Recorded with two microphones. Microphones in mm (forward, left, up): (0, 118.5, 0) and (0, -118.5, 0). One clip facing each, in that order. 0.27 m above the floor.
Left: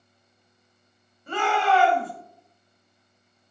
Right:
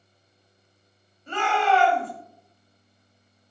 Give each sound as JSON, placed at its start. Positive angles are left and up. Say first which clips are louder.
{"t": 1.3, "sound": "a shout", "louder": "even", "side_deg": 10, "distance_m": 1.2}